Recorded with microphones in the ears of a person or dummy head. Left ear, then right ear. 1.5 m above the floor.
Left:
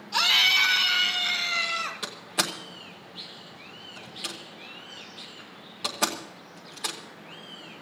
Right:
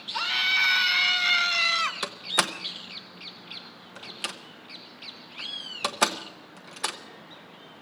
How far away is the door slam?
About 1.0 m.